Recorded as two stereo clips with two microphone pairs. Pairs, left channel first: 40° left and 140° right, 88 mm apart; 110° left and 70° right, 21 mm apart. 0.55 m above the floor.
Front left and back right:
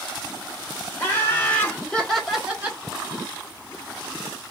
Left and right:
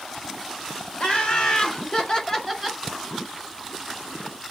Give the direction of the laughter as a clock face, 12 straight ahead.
9 o'clock.